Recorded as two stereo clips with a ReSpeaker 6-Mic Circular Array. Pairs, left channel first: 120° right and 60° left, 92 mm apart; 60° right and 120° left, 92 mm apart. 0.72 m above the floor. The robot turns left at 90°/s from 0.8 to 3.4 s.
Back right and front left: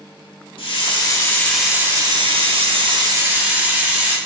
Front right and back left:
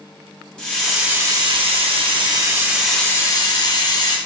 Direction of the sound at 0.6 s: 140° right.